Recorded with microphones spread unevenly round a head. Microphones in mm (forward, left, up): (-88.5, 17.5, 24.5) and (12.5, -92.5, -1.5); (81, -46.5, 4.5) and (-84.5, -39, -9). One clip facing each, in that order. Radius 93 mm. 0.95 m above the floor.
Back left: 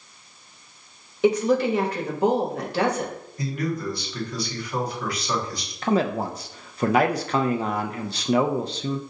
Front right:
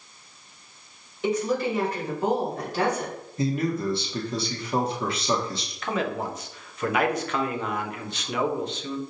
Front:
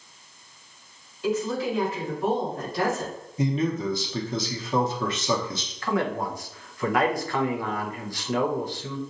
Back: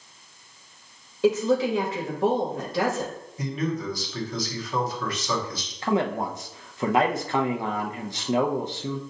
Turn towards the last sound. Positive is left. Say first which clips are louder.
# back left 5 dB, back 2 dB
turn(degrees=160)